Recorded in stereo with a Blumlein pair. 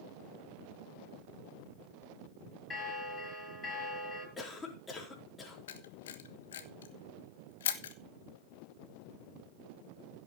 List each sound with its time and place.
2.7 s a bell: 15° left, 6.5 m
4.4 s a cough: 15° left, 4.5 m
5.7 s a camera shutter: 60° left, 1.3 m